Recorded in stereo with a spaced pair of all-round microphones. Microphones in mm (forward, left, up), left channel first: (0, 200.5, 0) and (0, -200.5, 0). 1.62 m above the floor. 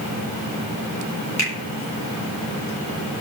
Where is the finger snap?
40° left (ahead or behind), 2.5 m.